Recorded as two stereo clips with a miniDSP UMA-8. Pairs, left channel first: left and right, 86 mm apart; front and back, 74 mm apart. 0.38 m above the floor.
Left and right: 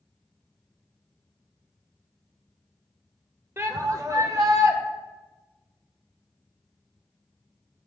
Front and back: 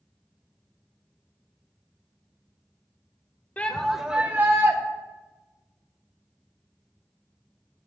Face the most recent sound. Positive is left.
turn(degrees=-135)